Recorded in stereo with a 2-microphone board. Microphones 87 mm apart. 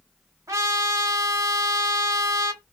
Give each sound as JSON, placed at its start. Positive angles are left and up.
{"t": 0.5, "sound": "a trumpet", "side_deg": -40, "distance_m": 1.1}